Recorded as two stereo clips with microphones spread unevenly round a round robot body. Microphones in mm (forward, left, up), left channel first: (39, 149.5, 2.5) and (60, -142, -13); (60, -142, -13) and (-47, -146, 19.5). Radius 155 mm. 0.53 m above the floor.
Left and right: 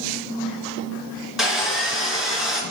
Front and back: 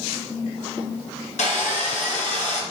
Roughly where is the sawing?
Ahead.